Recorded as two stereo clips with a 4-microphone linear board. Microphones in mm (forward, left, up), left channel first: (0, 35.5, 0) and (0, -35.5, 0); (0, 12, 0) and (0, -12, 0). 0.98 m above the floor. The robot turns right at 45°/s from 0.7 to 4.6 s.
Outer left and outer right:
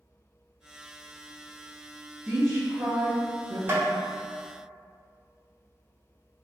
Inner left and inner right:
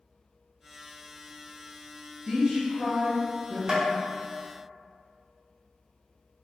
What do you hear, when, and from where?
2.3 s a woman speaking: 165° right, 0.6 m; by 3.6 s 105° right, 0.6 m
3.7 s tapping: 30° right (ahead or behind), 0.6 m; by 3.9 s 35° right (ahead or behind), 0.6 m